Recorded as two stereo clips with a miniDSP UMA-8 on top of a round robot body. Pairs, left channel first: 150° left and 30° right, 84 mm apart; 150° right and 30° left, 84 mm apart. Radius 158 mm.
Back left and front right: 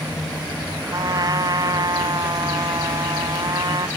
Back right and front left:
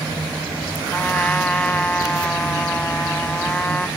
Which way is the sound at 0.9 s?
75° right.